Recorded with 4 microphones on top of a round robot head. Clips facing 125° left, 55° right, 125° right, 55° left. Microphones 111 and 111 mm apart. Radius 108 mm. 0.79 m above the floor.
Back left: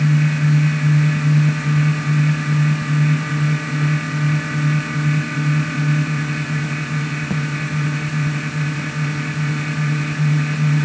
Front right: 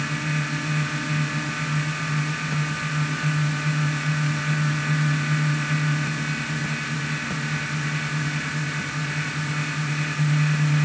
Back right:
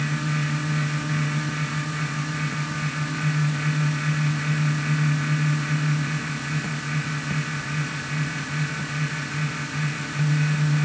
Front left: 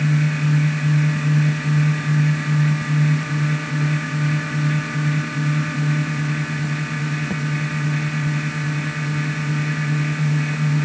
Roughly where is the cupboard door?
No cupboard door in this recording.